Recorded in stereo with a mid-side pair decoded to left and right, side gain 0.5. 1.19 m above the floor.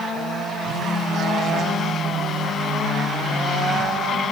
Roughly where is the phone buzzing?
Ahead left.